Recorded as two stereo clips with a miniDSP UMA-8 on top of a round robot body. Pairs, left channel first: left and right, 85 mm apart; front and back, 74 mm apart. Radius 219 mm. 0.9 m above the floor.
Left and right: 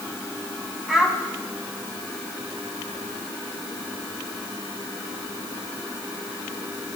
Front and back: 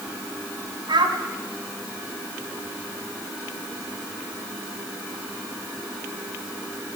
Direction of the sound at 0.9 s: 170° right.